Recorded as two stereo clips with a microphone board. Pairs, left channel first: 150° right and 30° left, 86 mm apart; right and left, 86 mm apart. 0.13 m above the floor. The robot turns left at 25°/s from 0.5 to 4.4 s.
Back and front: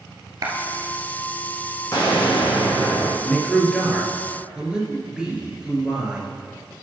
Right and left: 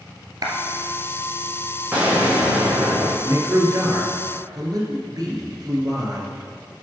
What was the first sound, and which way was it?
A clap, 65° left.